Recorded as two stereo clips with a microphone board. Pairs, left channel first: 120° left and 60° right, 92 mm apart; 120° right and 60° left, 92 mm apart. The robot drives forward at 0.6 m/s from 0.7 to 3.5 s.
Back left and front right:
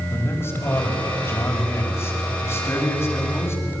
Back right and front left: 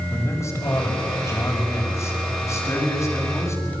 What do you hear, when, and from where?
0.1 s a man speaking: straight behind, 5 m